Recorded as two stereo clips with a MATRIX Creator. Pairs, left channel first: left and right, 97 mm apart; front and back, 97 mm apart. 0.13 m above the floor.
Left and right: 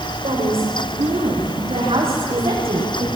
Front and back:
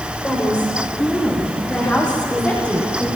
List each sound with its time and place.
0.2 s a woman speaking: 80° right, 10 m